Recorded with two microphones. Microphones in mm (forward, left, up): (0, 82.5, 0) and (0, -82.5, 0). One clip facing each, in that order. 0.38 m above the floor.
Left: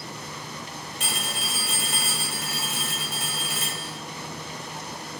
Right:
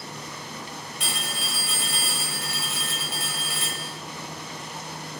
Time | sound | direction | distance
1.0 | a phone ringing | 45° left (ahead or behind) | 1.2 m